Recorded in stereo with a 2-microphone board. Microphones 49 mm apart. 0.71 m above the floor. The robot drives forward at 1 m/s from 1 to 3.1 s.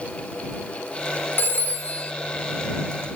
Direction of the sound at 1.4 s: 40° left (ahead or behind).